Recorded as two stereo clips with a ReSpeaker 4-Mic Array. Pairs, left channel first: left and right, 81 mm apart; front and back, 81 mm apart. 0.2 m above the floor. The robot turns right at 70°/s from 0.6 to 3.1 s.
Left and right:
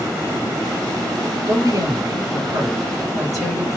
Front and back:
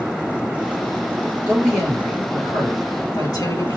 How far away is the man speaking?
About 4 m.